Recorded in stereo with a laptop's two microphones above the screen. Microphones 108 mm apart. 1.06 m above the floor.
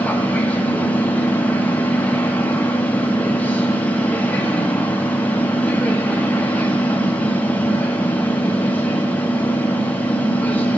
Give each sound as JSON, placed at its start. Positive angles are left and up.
{"t": 0.0, "sound": "a machine running", "side_deg": 15, "distance_m": 0.9}